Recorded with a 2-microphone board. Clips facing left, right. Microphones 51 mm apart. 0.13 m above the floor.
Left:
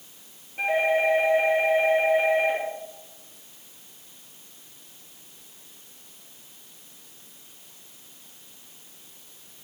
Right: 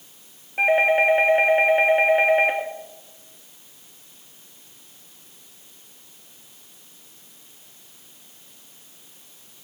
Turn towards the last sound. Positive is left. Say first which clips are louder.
# right 5 dB
turn(degrees=-60)  # may be behind; listen again after turning